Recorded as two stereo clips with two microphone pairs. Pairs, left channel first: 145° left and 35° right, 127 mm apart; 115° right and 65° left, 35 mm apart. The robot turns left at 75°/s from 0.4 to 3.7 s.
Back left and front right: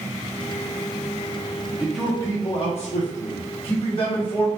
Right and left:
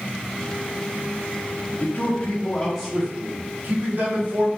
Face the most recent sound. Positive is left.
turn(degrees=105)